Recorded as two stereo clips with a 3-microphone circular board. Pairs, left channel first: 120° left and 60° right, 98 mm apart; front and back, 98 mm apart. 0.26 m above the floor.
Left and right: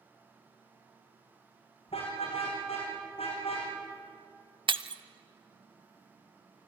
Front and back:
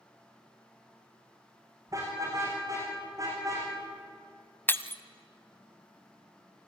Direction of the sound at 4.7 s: 65° right.